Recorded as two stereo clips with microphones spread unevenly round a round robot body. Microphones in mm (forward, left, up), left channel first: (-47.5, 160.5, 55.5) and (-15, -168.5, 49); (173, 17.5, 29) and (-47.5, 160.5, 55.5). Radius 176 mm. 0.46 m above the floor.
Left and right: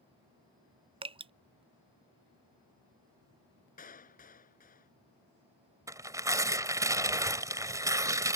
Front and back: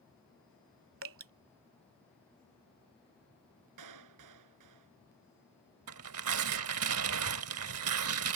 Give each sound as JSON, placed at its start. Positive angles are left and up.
{"t": 1.0, "sound": "dripping", "azimuth_deg": -160}
{"t": 3.8, "sound": "a clap", "azimuth_deg": 160}
{"t": 5.9, "sound": "tearing paper", "azimuth_deg": -165}